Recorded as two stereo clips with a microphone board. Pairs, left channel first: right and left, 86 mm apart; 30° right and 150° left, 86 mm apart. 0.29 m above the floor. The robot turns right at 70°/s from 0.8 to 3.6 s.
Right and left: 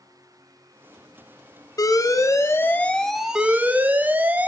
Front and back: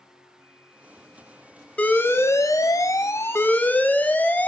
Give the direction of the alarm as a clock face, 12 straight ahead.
3 o'clock.